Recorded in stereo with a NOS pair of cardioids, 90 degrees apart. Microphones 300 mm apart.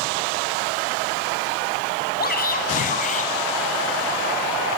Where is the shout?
30° left, 7 m; by 3.3 s 25° left, 7.5 m.